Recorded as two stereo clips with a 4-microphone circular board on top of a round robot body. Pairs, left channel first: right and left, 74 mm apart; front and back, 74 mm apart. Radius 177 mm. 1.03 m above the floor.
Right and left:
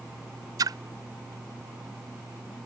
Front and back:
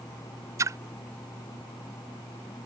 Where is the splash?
130° left.